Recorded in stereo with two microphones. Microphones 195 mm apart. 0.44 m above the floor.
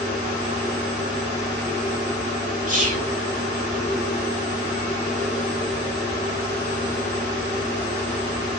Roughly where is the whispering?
Right.